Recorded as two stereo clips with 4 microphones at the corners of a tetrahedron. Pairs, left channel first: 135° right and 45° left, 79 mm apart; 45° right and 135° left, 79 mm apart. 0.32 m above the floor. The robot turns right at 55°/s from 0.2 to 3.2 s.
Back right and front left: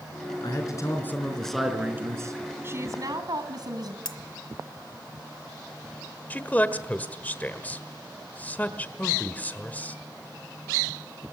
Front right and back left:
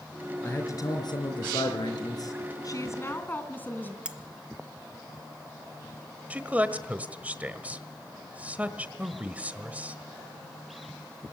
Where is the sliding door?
I don't hear a sliding door.